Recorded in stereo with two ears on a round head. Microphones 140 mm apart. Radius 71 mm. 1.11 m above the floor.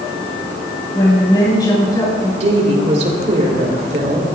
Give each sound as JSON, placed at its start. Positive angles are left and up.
{"t": 0.9, "sound": "a woman speaking", "side_deg": 25, "distance_m": 6.5}
{"t": 2.4, "sound": "a woman speaking", "side_deg": -45, "distance_m": 3.5}